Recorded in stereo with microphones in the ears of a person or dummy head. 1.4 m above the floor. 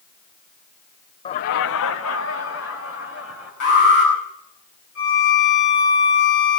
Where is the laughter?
30° left (ahead or behind), 0.5 m; by 3.5 s 65° left (ahead or behind), 3 m.